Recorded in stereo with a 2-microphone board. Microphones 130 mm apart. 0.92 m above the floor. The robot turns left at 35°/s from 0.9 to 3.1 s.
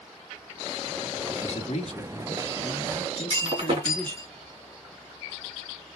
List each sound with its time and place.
1.3 s a man speaking: 80° left, 1.5 m; by 4.2 s 15° left, 1.5 m
3.1 s breaking glass: 40° right (ahead or behind), 3.5 m